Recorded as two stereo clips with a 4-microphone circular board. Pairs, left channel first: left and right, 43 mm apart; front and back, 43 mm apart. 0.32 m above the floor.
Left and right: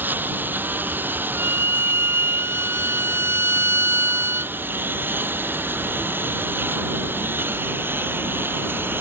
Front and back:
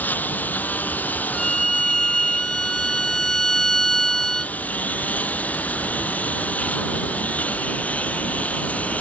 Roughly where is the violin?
Right.